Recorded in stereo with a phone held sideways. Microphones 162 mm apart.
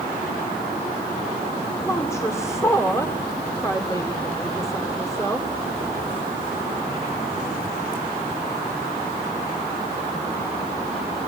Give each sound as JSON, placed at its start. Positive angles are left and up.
{"t": 1.8, "sound": "a woman speaking", "side_deg": 15, "distance_m": 2.5}